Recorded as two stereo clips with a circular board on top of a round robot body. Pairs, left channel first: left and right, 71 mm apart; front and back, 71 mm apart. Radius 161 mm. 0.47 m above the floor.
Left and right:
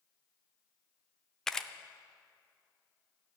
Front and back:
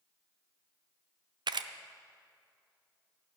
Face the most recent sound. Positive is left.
turn(degrees=175)